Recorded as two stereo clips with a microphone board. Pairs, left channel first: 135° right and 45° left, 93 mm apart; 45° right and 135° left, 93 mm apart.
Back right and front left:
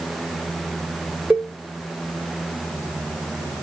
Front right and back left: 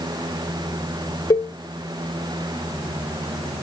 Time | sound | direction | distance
1.3 | a cowbell | 20° right | 0.5 m